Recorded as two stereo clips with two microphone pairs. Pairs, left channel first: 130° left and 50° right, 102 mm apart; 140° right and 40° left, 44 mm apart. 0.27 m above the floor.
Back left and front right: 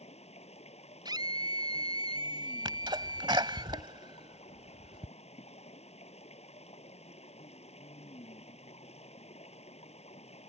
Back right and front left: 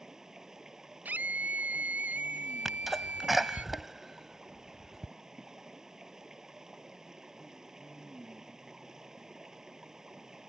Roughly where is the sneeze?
Ahead right.